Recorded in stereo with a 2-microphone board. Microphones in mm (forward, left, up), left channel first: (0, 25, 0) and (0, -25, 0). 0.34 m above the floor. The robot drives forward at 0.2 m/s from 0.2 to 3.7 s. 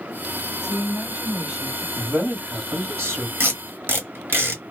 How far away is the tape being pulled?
About 1.1 m.